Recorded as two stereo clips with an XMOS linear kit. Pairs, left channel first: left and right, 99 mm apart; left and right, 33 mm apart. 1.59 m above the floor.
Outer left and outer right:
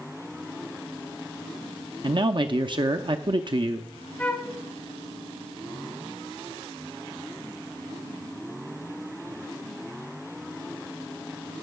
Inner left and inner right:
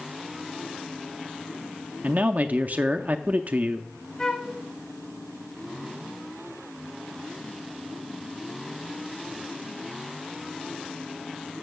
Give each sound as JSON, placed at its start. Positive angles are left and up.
{"t": 2.0, "sound": "a man speaking", "side_deg": -55, "distance_m": 0.5}
{"t": 4.2, "sound": "a flute", "side_deg": 15, "distance_m": 1.0}